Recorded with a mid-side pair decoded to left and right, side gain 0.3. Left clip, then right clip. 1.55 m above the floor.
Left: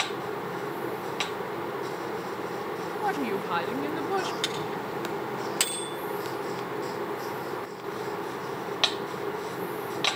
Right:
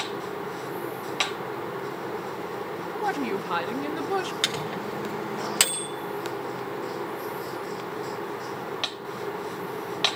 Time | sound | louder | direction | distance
3.0 | a woman speaking | right 1 dB | 15° right | 1.7 m
4.4 | a microwave | right 2 dB | 60° right | 1.8 m